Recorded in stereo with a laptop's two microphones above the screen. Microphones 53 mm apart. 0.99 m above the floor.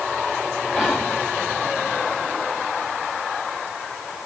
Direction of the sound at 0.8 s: 15° left (ahead or behind).